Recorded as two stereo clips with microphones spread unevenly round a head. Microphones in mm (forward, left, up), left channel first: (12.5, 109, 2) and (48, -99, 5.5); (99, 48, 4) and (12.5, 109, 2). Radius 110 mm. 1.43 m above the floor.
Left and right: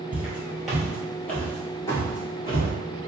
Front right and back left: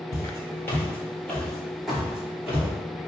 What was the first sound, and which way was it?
Footsteps, straight ahead.